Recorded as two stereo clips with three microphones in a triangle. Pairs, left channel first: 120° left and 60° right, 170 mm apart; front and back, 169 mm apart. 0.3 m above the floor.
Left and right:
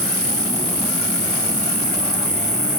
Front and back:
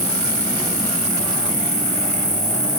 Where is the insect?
135° left, 1.5 m.